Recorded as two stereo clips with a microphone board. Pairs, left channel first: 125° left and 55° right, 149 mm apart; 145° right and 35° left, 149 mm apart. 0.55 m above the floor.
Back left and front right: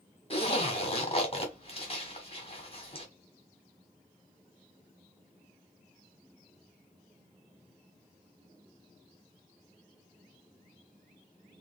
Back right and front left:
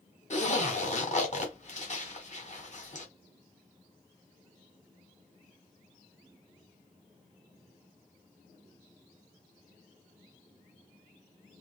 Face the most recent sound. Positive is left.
turn(degrees=175)